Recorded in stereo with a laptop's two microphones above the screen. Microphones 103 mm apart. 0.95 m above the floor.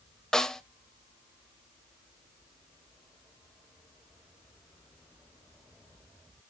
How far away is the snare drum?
About 0.7 m.